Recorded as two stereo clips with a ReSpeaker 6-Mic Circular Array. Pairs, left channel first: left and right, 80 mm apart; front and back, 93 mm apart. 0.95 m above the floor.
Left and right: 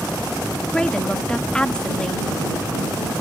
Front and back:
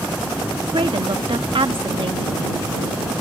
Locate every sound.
0.7 s a woman speaking: 170° left